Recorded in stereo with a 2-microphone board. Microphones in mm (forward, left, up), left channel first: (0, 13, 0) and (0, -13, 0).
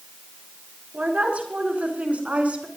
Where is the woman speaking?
60° right (ahead or behind), 4.5 m; by 2.7 s 55° right (ahead or behind), 4 m.